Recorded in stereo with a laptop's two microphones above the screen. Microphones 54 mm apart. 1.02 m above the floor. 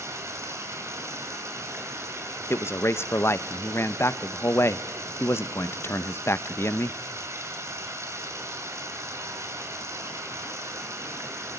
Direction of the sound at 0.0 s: 60° right (ahead or behind).